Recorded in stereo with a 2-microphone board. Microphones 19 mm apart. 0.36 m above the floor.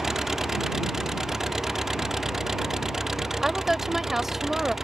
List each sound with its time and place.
0.0 s an engine running: 25° right (ahead or behind)
3.4 s a woman speaking: 20° right (ahead or behind)